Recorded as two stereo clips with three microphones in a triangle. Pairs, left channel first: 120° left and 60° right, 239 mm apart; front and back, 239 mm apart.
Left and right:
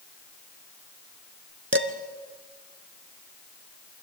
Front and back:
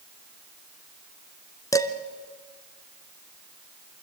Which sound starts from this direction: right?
Dishes clattering, at 1.7 s.